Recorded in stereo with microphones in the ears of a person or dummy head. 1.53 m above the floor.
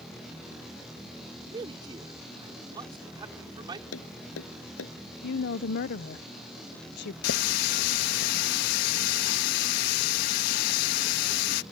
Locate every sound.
1.5 s a man speaking: 25° right (ahead or behind)
3.9 s tapping: 85° left
5.2 s a woman speaking: 65° left (ahead or behind)
7.2 s a running tap: 55° left (ahead or behind)